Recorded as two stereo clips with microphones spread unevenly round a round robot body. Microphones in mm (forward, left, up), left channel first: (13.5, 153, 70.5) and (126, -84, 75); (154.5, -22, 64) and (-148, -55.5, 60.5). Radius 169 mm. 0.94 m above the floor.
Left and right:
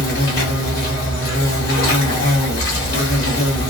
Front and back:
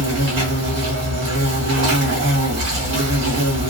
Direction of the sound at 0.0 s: 150° left.